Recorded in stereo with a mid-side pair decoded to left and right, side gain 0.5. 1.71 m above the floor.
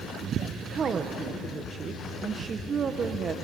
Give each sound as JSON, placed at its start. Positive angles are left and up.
{"t": 0.6, "sound": "a woman speaking", "azimuth_deg": -40, "distance_m": 1.6}